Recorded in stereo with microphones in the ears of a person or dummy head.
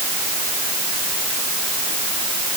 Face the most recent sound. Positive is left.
No sound to turn to.